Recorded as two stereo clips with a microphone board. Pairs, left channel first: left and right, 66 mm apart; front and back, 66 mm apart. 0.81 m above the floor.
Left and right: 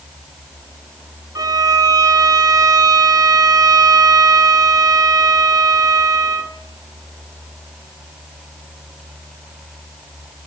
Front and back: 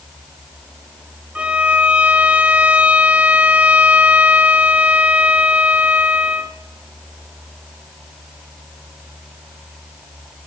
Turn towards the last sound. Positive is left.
turn(degrees=-110)